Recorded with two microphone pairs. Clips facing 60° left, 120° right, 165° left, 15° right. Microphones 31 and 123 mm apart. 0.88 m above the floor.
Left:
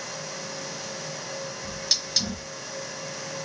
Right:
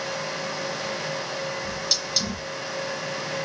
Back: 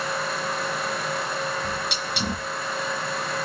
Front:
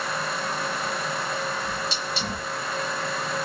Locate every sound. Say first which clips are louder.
1.6 s a hiss: right 2 dB, back 1 dB; 140° left, 3 m